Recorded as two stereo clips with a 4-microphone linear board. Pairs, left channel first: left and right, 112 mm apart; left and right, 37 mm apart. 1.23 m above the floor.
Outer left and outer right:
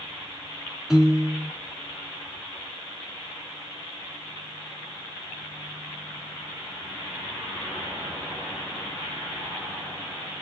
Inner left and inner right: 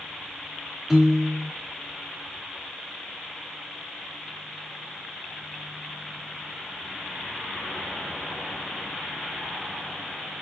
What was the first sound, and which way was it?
A piano, 5° right (ahead or behind).